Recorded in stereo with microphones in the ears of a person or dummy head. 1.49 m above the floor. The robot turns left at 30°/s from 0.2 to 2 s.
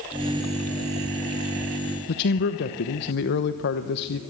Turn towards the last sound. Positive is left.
turn(degrees=60)  # may be behind; listen again after turning